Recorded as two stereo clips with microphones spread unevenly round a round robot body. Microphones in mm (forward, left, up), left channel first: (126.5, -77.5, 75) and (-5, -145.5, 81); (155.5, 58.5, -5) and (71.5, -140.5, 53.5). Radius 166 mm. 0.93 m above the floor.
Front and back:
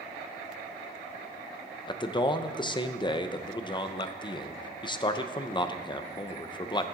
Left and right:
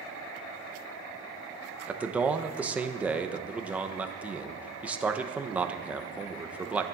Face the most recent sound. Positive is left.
turn(degrees=-10)